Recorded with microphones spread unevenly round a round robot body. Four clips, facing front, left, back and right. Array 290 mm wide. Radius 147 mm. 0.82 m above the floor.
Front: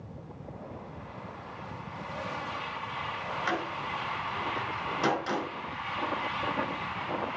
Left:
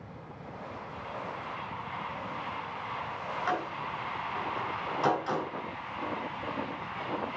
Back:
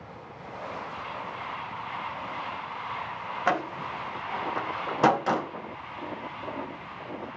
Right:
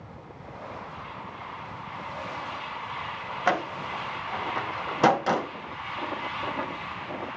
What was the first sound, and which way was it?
A door slam, 120° right.